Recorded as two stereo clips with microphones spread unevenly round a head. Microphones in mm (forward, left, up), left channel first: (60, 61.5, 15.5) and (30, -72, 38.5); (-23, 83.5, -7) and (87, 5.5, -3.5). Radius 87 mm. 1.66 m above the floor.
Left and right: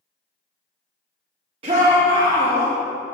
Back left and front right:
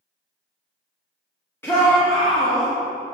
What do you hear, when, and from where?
1.6 s a shout: 140° right, 0.8 m; by 2.7 s 130° right, 1.8 m